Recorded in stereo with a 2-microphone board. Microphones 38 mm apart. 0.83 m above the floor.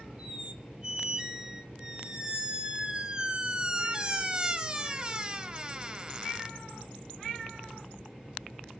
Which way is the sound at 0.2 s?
25° right (ahead or behind).